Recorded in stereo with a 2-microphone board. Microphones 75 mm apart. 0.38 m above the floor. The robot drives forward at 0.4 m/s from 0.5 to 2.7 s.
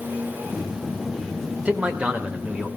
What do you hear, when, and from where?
1.6 s a man speaking: 15° right (ahead or behind), 1.0 m